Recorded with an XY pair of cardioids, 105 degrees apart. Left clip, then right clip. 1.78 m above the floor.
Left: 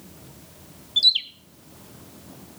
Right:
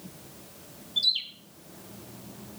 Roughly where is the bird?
Ahead left.